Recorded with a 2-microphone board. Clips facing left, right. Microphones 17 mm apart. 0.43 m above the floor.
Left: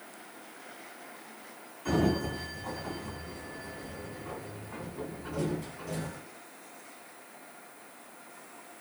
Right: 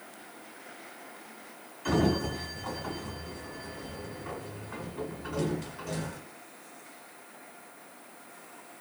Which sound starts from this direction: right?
A sliding door, at 1.9 s.